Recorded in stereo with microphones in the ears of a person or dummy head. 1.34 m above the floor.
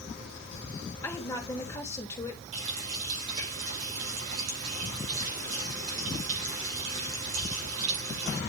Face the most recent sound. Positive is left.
turn(degrees=-85)